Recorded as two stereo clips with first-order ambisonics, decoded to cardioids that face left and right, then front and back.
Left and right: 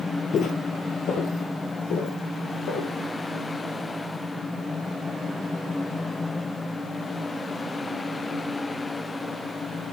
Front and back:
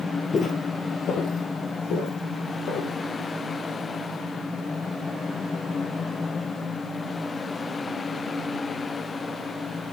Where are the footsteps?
55° left, 1.2 m; by 2.9 s 45° left, 4 m.